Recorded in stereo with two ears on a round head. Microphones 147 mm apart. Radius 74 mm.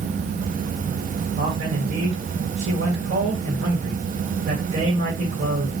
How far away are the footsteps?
No footsteps in this recording.